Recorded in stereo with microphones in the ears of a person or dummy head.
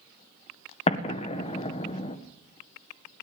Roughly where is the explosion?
Left.